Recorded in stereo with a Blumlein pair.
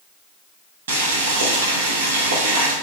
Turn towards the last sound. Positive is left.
turn(degrees=-60)